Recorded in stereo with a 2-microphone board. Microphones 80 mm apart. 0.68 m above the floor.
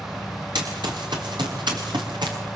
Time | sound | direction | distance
0.6 | running footsteps | 85° right | 6.5 m